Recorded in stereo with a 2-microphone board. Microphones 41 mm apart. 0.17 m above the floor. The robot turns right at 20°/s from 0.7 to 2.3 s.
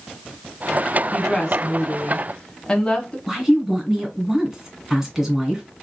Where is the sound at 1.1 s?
10° left (ahead or behind), 1.2 m; by 3.2 s 20° left (ahead or behind), 1.2 m.